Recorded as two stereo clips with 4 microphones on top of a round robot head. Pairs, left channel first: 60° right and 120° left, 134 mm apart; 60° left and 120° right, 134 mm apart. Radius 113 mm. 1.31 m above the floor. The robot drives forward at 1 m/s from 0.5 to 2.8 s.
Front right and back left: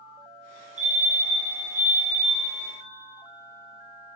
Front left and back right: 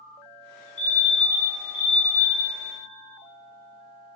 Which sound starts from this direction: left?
A fire alarm, at 0.8 s.